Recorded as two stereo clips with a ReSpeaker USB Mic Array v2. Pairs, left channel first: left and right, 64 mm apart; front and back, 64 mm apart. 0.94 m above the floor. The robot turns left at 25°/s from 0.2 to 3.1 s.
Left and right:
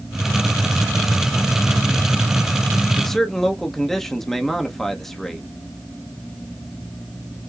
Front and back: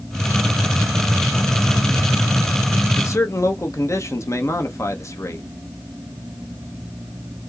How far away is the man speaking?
About 0.7 m.